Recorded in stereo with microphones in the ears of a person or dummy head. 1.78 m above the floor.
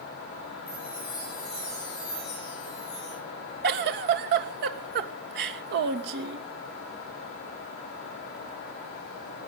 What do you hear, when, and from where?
0.7 s a chime: 25° left (ahead or behind), 10 m
3.6 s a giggle: 60° right (ahead or behind), 1.6 m